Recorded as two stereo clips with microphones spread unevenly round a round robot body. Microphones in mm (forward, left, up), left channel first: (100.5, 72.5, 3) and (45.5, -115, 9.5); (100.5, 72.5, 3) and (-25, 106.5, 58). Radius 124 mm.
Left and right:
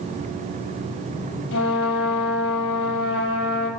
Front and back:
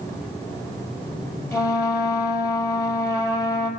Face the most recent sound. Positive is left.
turn(degrees=55)